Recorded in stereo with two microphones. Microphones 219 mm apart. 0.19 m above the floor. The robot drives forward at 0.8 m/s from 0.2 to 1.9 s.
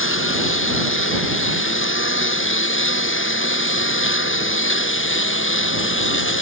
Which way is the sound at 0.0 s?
65° left (ahead or behind).